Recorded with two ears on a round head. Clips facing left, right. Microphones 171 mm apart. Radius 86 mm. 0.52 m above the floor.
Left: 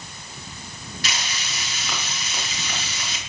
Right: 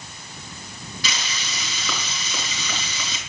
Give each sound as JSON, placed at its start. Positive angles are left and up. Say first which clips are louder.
{"t": 1.0, "sound": "frying", "louder": "even", "side_deg": -80, "distance_m": 5.5}